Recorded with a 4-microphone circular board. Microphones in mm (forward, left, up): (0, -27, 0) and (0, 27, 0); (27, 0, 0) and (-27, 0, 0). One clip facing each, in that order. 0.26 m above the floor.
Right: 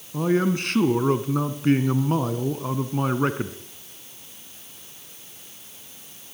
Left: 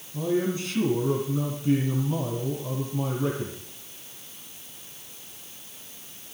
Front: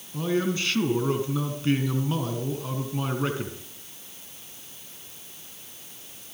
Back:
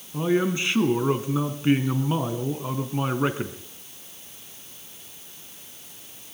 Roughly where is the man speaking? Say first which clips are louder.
Right 4 dB, back 3 dB; right.